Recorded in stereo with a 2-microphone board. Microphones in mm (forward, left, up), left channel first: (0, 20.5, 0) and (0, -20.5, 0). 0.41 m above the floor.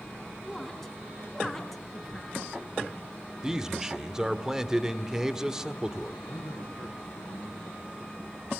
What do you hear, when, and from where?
0.4 s a woman speaking: 5° left (ahead or behind), 4 m
3.4 s a man speaking: 15° right (ahead or behind), 1.3 m
6.2 s a man speaking: 75° left (ahead or behind), 4 m